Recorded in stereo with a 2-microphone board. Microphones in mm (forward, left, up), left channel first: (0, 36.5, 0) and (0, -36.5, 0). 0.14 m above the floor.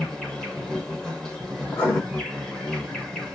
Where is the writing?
30° left (ahead or behind), 7.5 m.